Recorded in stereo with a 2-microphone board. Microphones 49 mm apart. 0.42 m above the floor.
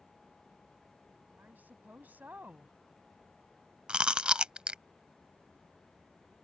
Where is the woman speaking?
40° right (ahead or behind).